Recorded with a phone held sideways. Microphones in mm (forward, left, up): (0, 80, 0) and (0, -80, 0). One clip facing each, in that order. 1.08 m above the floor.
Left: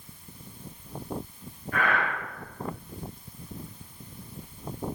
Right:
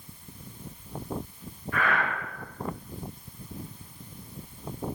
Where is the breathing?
55° left (ahead or behind), 1.3 m.